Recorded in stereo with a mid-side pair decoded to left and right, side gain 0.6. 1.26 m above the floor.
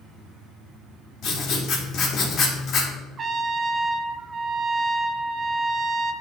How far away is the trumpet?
About 0.5 m.